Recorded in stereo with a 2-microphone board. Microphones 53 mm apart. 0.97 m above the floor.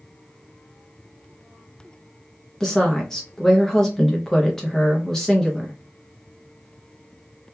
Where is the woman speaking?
10° left (ahead or behind), 0.6 m.